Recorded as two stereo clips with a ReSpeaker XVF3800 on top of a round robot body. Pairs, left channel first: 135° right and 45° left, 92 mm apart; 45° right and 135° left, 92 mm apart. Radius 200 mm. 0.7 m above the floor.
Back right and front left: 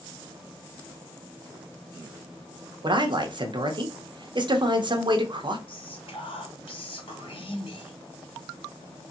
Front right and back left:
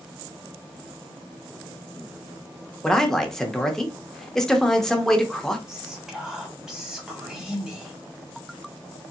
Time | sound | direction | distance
2.8 | a man speaking | 40° left | 1.5 m
5.7 | whispering | 140° right | 2.5 m